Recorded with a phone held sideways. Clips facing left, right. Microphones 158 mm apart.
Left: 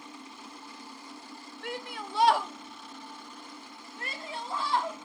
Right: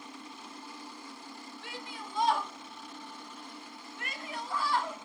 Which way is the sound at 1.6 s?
60° left (ahead or behind).